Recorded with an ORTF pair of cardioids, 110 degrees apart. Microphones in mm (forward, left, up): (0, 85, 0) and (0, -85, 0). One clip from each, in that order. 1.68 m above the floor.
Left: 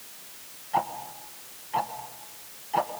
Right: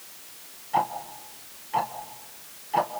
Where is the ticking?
5° right, 1.8 m.